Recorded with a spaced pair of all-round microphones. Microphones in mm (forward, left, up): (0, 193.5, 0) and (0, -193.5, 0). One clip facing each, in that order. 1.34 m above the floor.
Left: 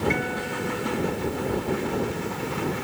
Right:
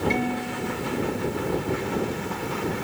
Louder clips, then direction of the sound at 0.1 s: Right 2 dB; 55° right (ahead or behind).